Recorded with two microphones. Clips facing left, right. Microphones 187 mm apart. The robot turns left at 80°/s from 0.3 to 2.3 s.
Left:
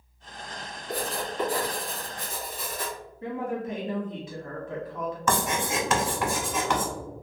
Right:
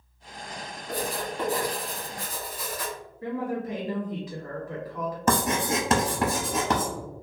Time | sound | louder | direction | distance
0.9 | writing | right 1 dB | 100° right | 1.6 m
3.2 | a woman speaking | right 1 dB | 25° left (ahead or behind) | 1.1 m
5.3 | writing | right 3 dB | 35° right (ahead or behind) | 0.8 m